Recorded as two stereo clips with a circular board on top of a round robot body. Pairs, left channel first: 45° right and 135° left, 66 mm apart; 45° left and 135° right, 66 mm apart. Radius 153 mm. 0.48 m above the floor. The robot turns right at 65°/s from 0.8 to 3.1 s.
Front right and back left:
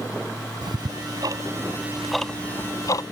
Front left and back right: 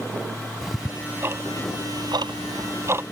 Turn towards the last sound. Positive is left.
turn(degrees=-70)